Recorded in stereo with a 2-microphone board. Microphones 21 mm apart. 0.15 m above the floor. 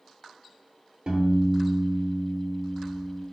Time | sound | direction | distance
1.1 | a piano | 65° right (ahead or behind) | 0.8 m